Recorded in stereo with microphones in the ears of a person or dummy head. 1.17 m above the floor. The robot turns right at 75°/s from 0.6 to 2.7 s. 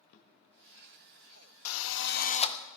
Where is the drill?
85° left, 0.7 m; by 2.6 s 155° left, 0.7 m.